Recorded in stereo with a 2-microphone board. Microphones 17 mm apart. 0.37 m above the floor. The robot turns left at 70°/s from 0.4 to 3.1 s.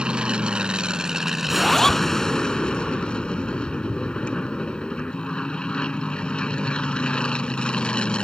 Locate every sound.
0.0 s an aircraft: 85° right; by 8.2 s 85° left
1.5 s a zipper: 175° left; by 2.1 s 135° left